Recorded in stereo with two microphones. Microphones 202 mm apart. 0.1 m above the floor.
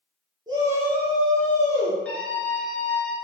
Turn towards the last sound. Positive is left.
turn(degrees=5)  # may be behind; listen again after turning